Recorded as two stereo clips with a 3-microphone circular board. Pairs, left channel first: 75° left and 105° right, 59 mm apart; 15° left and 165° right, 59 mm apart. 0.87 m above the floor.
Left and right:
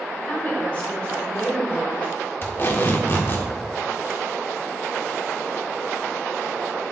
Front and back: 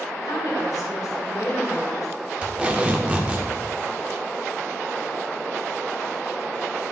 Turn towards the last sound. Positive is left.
turn(degrees=125)